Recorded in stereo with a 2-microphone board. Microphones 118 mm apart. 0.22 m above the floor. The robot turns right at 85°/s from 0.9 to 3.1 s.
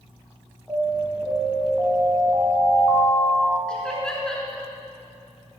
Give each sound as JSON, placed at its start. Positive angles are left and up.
{"t": 0.7, "sound": "an alarm", "azimuth_deg": 160, "distance_m": 2.0}
{"t": 3.7, "sound": "laughter", "side_deg": 5, "distance_m": 3.5}